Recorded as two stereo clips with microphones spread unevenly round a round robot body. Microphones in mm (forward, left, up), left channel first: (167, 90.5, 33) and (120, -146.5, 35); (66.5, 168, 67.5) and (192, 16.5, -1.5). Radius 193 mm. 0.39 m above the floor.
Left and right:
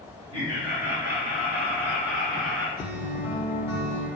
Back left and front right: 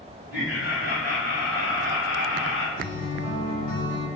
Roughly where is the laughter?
Behind.